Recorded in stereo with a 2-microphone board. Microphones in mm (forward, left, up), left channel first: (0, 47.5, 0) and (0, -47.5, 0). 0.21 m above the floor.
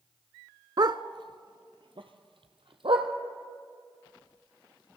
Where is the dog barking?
55° right (ahead or behind), 0.5 m; by 3.1 s 70° right (ahead or behind), 2.0 m.